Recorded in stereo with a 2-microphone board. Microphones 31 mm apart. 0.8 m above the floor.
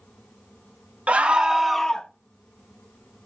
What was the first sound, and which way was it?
A scream, 45° right (ahead or behind).